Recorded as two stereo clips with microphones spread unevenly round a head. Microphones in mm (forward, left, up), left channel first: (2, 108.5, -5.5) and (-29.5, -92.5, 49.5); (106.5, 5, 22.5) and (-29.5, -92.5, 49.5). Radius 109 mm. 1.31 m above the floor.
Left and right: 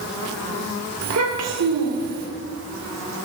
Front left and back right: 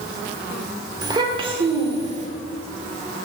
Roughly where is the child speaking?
Right.